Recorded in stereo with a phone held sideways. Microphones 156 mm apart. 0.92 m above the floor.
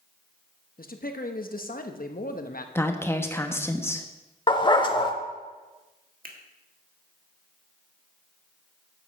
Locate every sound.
0.8 s a man speaking: 70° left (ahead or behind), 0.9 m
2.8 s a woman speaking: 15° left (ahead or behind), 0.9 m
4.5 s a dog barking: 30° left (ahead or behind), 0.8 m
6.2 s a finger snap: 65° right (ahead or behind), 1.5 m